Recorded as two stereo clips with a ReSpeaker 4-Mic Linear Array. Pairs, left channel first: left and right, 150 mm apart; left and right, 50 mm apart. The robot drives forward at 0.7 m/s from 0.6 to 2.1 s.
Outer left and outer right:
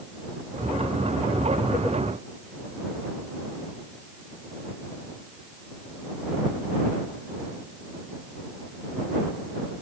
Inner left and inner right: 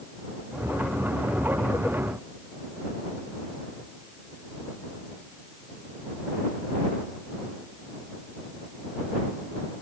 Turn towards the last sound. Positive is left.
No sound to turn to.